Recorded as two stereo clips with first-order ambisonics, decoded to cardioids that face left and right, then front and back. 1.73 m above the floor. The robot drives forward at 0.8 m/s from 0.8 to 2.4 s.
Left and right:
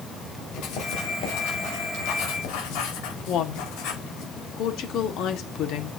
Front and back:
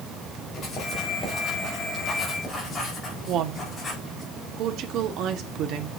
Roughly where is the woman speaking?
Behind left.